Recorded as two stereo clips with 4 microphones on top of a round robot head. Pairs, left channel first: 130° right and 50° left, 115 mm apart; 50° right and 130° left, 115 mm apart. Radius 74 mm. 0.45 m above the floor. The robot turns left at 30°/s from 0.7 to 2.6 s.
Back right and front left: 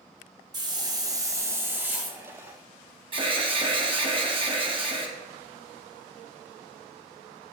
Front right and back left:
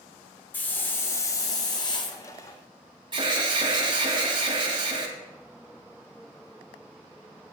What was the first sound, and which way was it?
A hiss, 15° left.